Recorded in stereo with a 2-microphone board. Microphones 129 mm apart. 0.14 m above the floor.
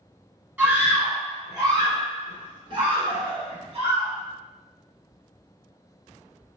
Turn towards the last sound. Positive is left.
turn(degrees=-50)  # may be behind; listen again after turning